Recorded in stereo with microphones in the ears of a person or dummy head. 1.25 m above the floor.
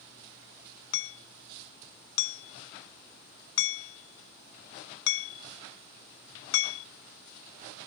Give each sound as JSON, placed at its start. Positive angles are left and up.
{"t": 0.9, "sound": "hammering", "side_deg": 85}